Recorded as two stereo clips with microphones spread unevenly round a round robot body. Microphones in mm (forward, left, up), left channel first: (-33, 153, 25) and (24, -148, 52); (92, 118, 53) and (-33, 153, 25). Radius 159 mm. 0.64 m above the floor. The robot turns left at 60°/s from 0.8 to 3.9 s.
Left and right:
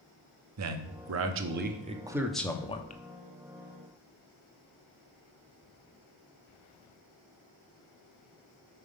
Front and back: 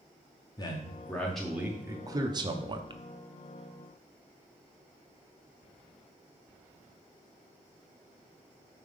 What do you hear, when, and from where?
0.6 s a man speaking: 80° right, 0.9 m; by 3.0 s 145° left, 0.9 m